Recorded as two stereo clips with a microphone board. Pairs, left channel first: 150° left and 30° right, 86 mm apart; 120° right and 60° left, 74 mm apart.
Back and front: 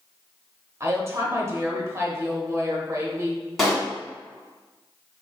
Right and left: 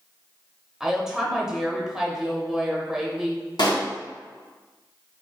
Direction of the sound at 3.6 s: 125° right.